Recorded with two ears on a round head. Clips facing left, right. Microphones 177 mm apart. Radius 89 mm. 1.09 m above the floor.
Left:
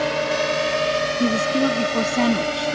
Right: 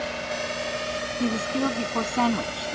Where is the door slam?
No door slam in this recording.